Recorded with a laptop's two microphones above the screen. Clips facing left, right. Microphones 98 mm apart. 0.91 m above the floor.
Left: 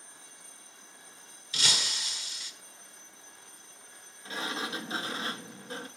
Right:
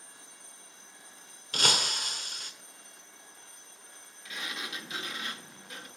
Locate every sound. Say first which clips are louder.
1.5 s breaking glass: right 5 dB; 45° right (ahead or behind), 1.4 m
4.2 s a sliding door: left 5 dB; 30° left (ahead or behind), 1.5 m